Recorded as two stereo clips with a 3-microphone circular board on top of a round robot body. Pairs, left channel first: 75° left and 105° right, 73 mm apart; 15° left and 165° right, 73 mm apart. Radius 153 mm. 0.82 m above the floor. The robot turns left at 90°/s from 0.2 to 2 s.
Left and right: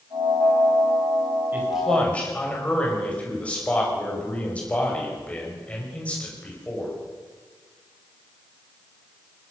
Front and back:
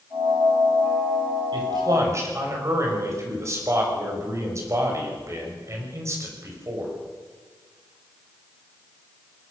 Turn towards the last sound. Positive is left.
turn(degrees=145)